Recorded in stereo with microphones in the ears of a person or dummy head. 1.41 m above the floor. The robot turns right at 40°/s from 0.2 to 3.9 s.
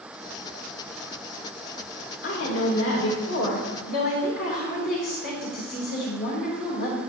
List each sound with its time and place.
2.2 s a woman speaking: 60° left, 2.5 m; by 7.0 s 125° left, 2.5 m